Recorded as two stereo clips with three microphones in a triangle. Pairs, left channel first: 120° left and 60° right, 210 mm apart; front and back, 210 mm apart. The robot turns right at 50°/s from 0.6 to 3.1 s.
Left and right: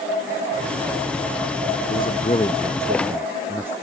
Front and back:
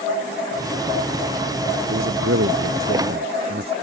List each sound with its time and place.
1.9 s a man speaking: 160° left; by 3.7 s 140° right